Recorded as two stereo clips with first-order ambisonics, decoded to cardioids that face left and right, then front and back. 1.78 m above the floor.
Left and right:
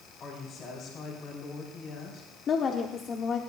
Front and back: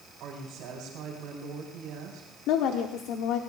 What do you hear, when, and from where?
0.2 s a woman speaking: 140° left, 4.5 m
2.5 s a woman speaking: 30° left, 0.9 m